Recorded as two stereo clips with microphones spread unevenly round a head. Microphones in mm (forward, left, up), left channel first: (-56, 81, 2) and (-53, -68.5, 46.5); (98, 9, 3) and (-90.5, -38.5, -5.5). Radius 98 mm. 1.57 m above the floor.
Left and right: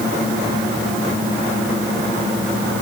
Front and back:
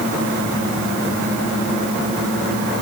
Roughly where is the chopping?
I don't hear chopping.